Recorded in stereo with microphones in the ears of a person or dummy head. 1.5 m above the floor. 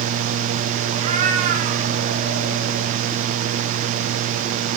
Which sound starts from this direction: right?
A cat meowing, at 0.9 s.